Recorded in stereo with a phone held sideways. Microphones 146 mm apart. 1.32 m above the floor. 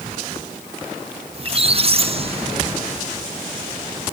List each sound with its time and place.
1.3 s a squeak: 40° right (ahead or behind), 1.1 m